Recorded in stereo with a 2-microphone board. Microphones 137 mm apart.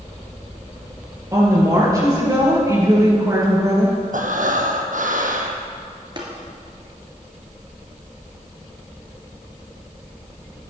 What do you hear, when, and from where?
1.3 s a woman speaking: 25° right (ahead or behind), 5 m
4.1 s breathing: 75° right (ahead or behind), 1.3 m
6.2 s tapping: 35° right (ahead or behind), 2.5 m